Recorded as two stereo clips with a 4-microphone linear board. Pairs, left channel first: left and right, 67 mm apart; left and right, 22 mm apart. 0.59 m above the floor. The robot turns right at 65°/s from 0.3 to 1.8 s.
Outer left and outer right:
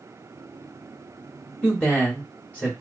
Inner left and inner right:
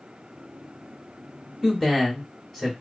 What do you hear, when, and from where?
1.6 s a man speaking: 10° left (ahead or behind), 1.4 m; by 2.7 s 20° left (ahead or behind), 1.4 m